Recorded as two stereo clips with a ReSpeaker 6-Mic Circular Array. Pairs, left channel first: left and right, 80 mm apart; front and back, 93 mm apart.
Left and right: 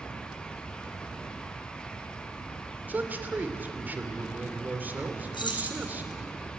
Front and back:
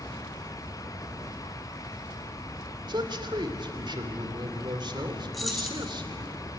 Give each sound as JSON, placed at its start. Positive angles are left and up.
{"t": 2.9, "sound": "a man speaking", "azimuth_deg": -155, "distance_m": 2.5}
{"t": 5.3, "sound": "keys jangling", "azimuth_deg": 90, "distance_m": 3.5}